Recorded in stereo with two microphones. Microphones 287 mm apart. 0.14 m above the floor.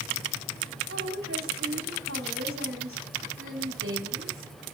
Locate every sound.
0.9 s a woman speaking: 50° right (ahead or behind), 6 m